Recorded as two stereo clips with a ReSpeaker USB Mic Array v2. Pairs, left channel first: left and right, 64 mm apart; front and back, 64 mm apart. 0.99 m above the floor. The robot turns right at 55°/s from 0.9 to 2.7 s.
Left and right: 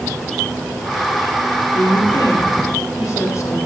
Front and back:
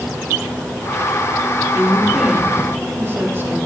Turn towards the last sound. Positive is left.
turn(degrees=130)